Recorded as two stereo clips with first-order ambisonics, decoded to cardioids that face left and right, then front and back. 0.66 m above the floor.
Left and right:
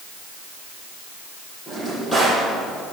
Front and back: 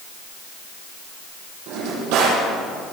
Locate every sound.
1.7 s a drawer: 175° left, 7.5 m